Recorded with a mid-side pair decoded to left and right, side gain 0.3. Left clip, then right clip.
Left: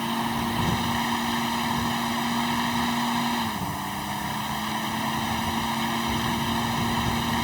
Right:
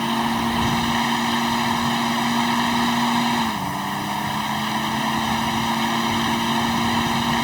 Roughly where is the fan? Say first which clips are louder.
Right 5 dB; ahead right.